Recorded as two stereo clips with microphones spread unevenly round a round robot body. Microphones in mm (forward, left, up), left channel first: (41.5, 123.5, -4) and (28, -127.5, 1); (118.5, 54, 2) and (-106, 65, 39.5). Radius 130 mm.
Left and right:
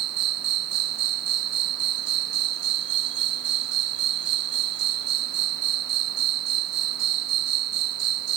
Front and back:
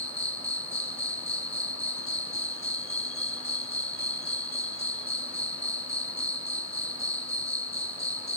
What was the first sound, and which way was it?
An insect, 90° right.